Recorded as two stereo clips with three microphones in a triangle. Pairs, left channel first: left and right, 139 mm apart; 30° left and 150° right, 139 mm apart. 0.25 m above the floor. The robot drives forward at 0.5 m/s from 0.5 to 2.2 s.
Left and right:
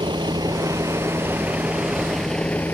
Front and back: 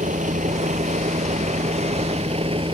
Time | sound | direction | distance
0.0 | a vehicle | 145° right | ?